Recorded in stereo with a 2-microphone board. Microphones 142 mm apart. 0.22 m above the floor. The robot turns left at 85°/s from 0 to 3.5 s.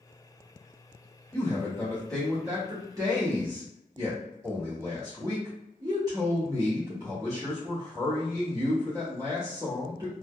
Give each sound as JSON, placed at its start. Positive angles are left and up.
{"t": 1.3, "sound": "a man speaking", "side_deg": 30, "distance_m": 1.0}